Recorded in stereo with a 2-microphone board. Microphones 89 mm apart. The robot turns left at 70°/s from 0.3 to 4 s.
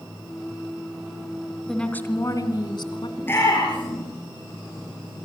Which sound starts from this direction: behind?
A woman speaking, at 1.7 s.